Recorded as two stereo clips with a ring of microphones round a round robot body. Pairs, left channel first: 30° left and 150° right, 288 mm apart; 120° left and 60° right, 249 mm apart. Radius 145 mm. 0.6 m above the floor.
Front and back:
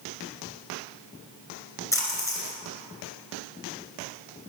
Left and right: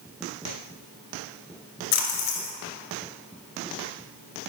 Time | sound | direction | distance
1.9 | a splash | 110° left | 2 m